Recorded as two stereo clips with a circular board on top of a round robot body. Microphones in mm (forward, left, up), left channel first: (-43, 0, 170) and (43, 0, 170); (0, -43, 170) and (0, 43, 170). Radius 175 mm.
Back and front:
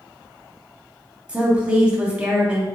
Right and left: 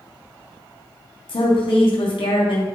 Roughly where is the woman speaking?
Right.